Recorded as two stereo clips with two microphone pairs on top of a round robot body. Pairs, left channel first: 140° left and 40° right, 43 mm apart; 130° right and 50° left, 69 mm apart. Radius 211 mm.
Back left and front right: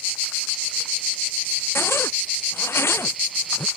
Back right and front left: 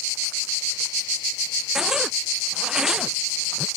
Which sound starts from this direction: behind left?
A zipper, at 1.8 s.